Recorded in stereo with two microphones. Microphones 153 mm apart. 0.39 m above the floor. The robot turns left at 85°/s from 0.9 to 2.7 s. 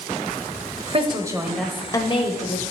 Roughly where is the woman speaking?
Behind right.